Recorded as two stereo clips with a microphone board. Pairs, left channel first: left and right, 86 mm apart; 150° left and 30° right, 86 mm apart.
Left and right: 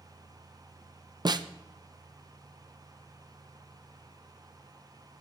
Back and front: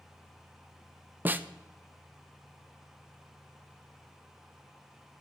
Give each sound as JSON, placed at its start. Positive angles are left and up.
{"t": 1.2, "sound": "a snare drum", "azimuth_deg": -95, "distance_m": 0.7}